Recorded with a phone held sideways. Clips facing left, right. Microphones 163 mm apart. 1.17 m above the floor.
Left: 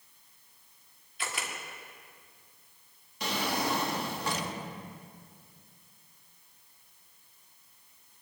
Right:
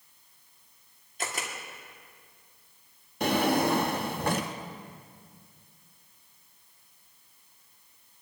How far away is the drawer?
About 0.8 m.